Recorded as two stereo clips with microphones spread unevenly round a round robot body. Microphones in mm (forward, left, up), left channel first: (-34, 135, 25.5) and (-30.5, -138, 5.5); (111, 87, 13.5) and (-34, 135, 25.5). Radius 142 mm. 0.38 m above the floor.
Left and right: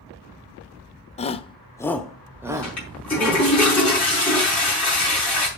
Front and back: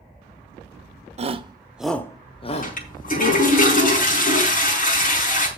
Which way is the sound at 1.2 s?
150° left.